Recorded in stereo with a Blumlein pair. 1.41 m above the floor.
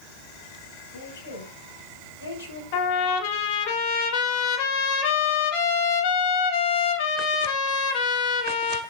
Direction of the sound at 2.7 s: 50° left.